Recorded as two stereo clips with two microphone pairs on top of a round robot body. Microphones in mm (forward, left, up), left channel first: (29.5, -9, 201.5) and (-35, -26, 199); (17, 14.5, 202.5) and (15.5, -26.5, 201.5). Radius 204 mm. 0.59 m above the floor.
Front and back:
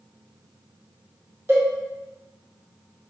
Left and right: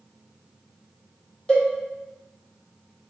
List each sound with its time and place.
1.5 s a cowbell: 150° left, 1.5 m